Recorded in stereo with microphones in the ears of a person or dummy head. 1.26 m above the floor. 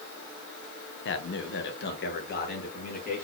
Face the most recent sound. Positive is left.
turn(degrees=40)  # may be behind; listen again after turning